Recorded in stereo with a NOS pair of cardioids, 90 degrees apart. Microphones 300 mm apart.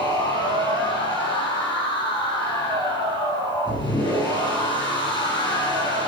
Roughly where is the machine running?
Ahead.